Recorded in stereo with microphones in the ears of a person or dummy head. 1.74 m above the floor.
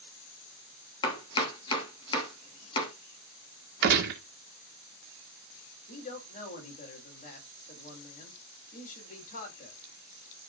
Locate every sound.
1.0 s chopping: 30° left (ahead or behind), 3 m
3.8 s a gunshot: 65° right (ahead or behind), 1.6 m
5.9 s a man speaking: 50° left (ahead or behind), 4 m